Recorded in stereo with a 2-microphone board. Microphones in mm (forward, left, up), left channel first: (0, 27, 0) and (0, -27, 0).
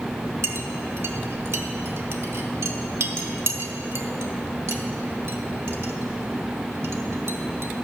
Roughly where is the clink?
Right.